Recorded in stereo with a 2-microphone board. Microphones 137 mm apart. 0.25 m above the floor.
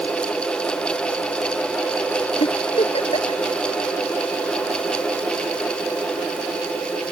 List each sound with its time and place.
2.4 s a giggle: 45° left (ahead or behind)